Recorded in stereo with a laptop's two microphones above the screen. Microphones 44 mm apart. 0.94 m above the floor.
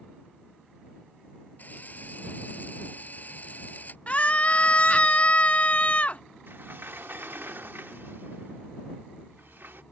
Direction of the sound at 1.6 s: 40° left (ahead or behind).